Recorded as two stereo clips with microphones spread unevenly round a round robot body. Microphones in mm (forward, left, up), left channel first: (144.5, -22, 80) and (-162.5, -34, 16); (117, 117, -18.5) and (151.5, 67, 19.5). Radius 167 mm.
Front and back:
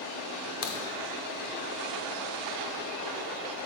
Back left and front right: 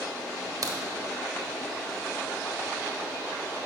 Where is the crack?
5° right, 0.9 m.